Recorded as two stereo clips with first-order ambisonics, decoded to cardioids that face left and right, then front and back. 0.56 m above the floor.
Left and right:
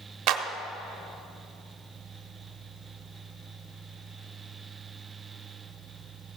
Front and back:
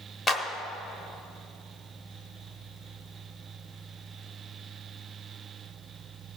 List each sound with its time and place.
0.3 s a clap: 70° right, 0.8 m